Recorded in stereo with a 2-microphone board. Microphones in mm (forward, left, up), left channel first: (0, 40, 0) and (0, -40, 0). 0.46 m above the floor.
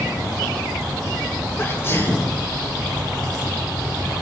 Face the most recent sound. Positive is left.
turn(degrees=35)  # may be behind; listen again after turning